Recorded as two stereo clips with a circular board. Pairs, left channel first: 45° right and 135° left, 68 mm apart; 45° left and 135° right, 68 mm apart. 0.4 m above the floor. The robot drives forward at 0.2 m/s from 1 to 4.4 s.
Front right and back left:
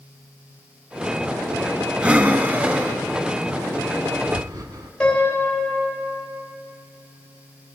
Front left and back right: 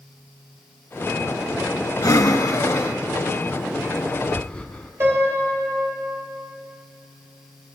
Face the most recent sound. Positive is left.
turn(degrees=-115)